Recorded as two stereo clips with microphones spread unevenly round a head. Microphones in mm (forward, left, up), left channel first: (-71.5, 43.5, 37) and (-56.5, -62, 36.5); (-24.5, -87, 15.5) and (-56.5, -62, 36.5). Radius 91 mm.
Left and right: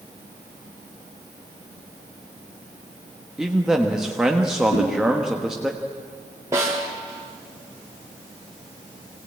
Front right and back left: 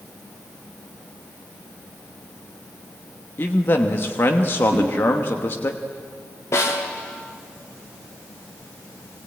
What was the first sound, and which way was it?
A man speaking, 5° left.